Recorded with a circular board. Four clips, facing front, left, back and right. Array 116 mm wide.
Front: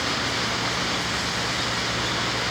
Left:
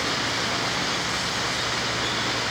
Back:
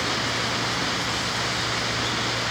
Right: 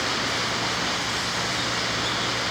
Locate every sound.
Only background noise.